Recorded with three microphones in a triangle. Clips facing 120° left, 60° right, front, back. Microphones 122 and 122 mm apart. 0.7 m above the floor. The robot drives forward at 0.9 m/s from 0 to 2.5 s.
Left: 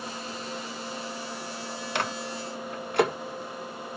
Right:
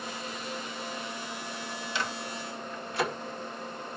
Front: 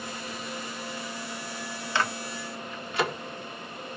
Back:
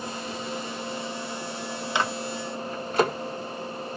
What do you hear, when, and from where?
1.9 s a microwave: 110° left, 0.9 m; by 3.1 s 135° left, 1.1 m